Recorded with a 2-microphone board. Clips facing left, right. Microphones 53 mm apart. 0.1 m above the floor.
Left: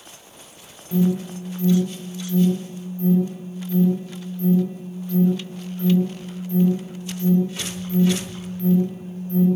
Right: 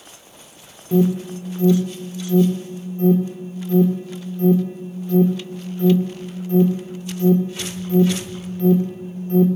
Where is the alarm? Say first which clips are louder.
Right 3 dB; 55° right (ahead or behind), 3 m.